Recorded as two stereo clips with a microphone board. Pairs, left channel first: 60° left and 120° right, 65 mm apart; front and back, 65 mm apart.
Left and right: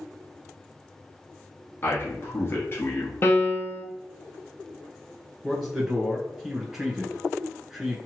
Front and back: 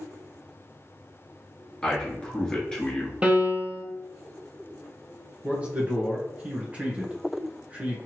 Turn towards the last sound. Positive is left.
turn(degrees=165)